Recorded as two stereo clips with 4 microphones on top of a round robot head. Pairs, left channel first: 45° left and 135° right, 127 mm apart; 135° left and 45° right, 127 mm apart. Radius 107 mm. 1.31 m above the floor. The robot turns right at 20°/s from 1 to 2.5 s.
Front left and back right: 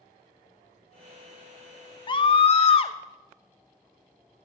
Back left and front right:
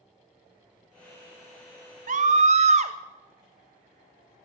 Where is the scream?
15° right, 1.2 m; by 3.0 s 5° right, 1.2 m.